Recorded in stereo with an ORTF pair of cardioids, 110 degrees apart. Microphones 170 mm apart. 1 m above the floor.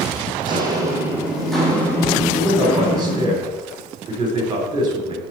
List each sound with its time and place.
0.4 s footsteps: 30° right, 3 m; by 3.3 s 40° left, 4.5 m
2.3 s a man speaking: 25° right, 3.5 m